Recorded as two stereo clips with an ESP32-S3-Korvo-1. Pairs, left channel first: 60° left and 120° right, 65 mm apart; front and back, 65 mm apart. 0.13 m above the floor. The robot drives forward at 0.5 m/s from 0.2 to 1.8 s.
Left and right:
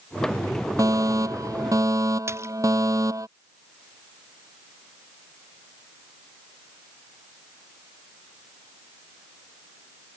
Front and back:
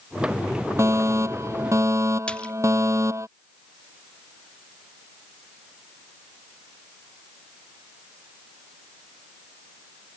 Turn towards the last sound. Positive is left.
turn(degrees=-75)